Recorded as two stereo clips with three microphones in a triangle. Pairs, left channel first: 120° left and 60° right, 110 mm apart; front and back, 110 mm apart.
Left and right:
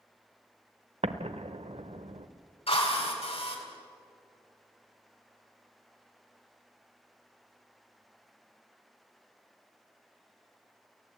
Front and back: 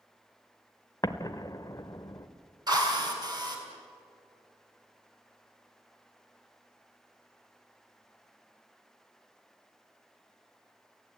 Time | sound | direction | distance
1.0 | an explosion | 55° right | 0.9 m
2.7 | a drill | 135° left | 3.5 m